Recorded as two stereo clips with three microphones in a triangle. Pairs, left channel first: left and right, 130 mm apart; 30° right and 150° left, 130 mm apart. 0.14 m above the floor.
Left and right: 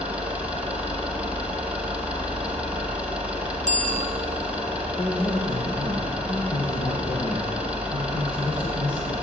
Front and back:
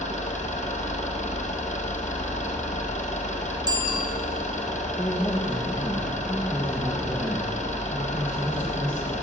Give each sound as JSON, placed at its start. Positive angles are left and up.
{"t": 0.0, "sound": "an engine running", "azimuth_deg": -10, "distance_m": 5.0}
{"t": 3.7, "sound": "a bicycle bell", "azimuth_deg": 95, "distance_m": 2.5}
{"t": 5.0, "sound": "a man speaking", "azimuth_deg": 50, "distance_m": 4.5}